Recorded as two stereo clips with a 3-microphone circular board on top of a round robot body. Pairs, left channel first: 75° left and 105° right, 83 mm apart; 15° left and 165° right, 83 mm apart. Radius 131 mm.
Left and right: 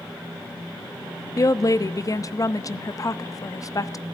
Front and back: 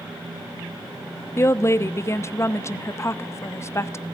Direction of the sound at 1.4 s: 55° left.